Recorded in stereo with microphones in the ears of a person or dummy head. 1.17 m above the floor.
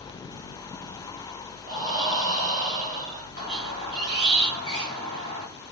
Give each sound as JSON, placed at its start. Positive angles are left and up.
{"t": 1.7, "sound": "breathing", "side_deg": -20, "distance_m": 0.8}
{"t": 3.4, "sound": "a squeak", "side_deg": 35, "distance_m": 1.3}